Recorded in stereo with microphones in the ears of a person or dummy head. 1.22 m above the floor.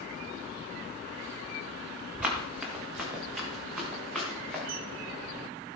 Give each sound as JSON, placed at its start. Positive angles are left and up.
{"t": 2.2, "sound": "running footsteps", "side_deg": -10, "distance_m": 5.5}
{"t": 4.7, "sound": "a camera shutter", "side_deg": -60, "distance_m": 1.5}